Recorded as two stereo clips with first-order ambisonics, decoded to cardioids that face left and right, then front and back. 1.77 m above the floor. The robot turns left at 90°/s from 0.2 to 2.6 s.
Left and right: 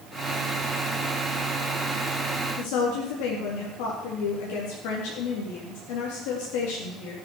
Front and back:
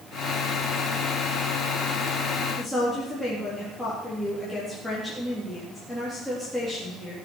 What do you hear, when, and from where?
2.6 s a woman speaking: 90° left, 3.5 m; by 7.2 s 85° left, 3.5 m